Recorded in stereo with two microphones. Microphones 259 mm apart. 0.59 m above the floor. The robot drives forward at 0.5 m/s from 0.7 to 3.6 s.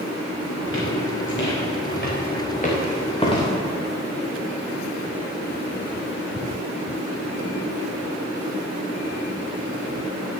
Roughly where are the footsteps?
Left.